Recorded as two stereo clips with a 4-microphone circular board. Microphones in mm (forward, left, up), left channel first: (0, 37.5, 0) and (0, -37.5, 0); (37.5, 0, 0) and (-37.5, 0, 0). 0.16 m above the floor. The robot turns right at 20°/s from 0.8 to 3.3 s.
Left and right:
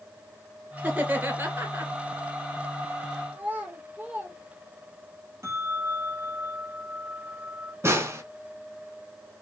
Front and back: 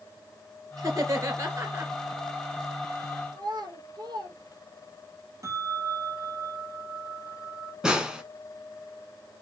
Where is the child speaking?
160° right, 2.5 m.